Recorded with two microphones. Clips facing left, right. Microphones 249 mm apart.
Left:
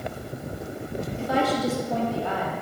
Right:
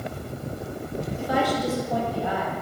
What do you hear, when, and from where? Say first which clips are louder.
1.2 s a woman speaking: left 1 dB; 25° left (ahead or behind), 1.7 m